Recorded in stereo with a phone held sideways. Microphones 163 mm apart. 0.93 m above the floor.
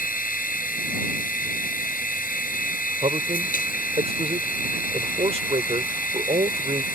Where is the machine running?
65° left (ahead or behind).